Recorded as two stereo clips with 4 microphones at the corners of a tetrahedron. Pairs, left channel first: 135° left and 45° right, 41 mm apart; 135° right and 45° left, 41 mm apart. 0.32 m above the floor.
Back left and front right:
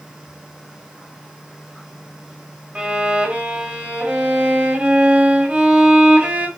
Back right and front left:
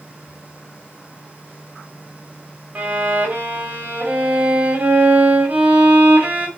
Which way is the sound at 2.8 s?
Straight ahead.